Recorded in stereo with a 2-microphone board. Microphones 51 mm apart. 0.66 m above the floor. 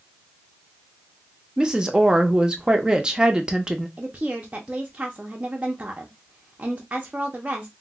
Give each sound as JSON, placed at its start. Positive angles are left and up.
{"t": 1.6, "sound": "a woman speaking", "side_deg": -15, "distance_m": 0.6}
{"t": 4.0, "sound": "a woman speaking", "side_deg": -25, "distance_m": 0.5}